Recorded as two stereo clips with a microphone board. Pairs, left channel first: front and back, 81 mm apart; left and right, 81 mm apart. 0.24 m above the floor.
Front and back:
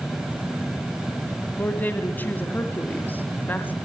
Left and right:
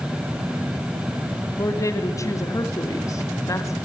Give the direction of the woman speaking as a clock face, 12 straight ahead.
10 o'clock.